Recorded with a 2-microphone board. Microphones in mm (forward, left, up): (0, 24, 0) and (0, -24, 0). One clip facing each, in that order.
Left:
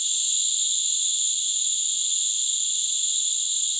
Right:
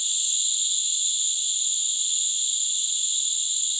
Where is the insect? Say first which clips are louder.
Even; 15° right (ahead or behind), 1.8 m.